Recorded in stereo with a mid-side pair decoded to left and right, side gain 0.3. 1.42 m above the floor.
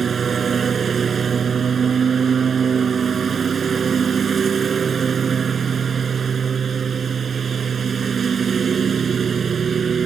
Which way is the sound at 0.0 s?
60° right.